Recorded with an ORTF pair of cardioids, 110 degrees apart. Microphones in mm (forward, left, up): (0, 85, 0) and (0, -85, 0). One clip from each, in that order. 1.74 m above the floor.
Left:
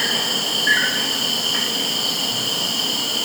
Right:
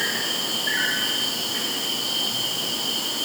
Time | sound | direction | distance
0.0 | an insect | 50° left | 3 m